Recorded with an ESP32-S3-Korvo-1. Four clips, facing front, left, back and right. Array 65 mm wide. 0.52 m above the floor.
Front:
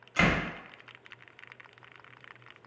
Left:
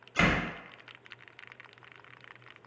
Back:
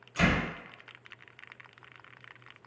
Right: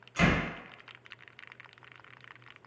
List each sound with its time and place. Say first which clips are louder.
0.2 s a door slam: even, front 1 dB; 35° left, 1.2 m